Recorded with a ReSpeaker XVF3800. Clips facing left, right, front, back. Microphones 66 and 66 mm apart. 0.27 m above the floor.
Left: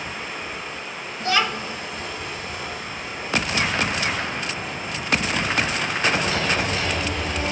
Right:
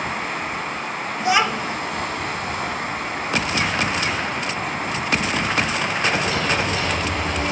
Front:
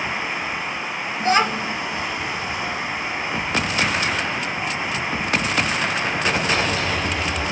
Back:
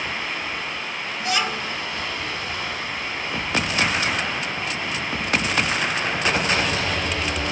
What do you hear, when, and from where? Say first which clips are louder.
0.0 s running water: right 6 dB, front 3 dB; 70° right, 0.9 m
1.2 s a child speaking: right 3 dB, front 6 dB; 30° right, 0.7 m